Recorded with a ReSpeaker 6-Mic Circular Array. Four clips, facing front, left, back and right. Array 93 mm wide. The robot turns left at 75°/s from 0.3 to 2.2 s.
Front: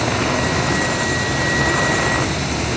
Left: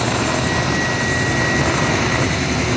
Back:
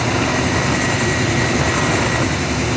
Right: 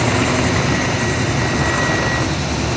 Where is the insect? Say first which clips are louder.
Right 2 dB, back 1 dB; 90° right, 3.5 m; by 2.8 s 125° left, 3.5 m.